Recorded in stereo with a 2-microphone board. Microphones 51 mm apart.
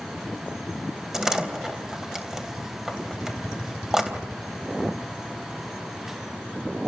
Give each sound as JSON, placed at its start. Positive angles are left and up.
{"t": 1.1, "sound": "a door slam", "side_deg": -10, "distance_m": 3.0}